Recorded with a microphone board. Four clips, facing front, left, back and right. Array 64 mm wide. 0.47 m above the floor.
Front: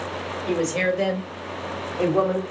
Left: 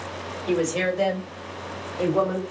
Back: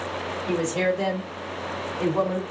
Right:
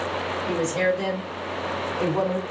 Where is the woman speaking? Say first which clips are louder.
Left 1 dB, front 1 dB; 55° left, 1.8 m; by 2.4 s 15° left, 2.5 m.